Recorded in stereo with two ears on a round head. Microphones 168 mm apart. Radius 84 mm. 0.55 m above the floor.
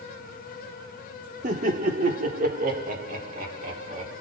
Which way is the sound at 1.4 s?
40° right (ahead or behind).